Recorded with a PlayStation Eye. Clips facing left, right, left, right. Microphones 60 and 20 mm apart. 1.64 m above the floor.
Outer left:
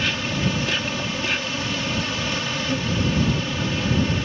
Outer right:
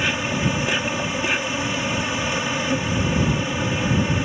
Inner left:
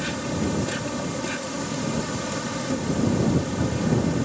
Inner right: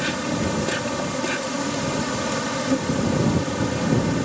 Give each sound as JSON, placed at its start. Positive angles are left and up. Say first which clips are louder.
{"t": 0.0, "sound": "an insect", "louder": "outer right 2 dB, inner right 3 dB", "side_deg": -20}